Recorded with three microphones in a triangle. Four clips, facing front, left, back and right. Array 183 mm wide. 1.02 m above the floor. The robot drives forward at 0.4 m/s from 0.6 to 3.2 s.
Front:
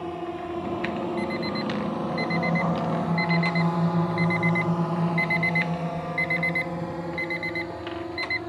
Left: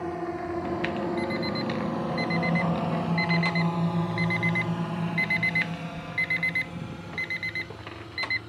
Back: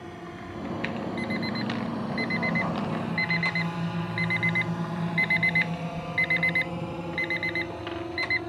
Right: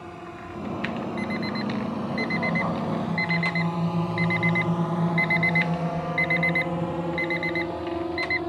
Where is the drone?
45° left; by 8.5 s 90° right.